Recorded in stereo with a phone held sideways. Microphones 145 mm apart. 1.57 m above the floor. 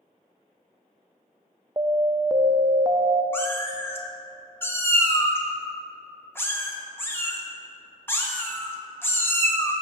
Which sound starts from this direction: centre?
A cat meowing, at 3.3 s.